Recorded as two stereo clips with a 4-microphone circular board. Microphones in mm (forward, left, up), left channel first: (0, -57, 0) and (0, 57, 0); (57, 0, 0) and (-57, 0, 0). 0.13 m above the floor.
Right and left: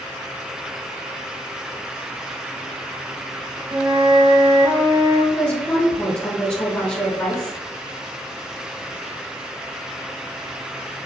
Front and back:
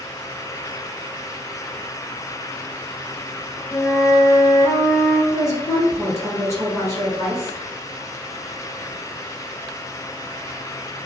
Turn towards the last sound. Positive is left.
turn(degrees=-20)